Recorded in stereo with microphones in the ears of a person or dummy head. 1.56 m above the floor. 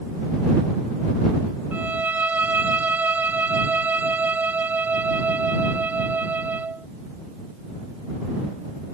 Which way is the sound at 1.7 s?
5° right (ahead or behind).